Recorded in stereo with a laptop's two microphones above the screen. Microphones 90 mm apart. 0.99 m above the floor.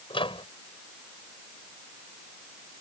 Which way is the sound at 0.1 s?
70° left (ahead or behind).